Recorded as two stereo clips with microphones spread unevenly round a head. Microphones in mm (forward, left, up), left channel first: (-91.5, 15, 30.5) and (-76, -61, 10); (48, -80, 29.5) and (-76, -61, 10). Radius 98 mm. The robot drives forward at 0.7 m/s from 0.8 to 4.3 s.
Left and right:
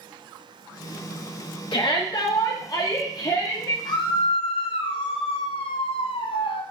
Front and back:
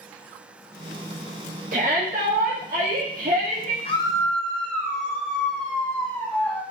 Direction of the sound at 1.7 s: 120° left.